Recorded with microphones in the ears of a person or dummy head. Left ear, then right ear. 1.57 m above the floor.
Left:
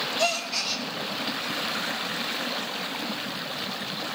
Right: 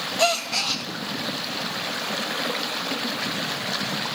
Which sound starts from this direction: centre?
A gasp, at 0.2 s.